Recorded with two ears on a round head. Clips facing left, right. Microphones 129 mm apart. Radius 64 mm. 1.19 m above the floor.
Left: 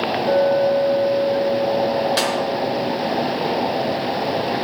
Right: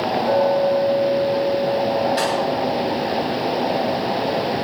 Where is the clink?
30° left (ahead or behind), 1.4 m.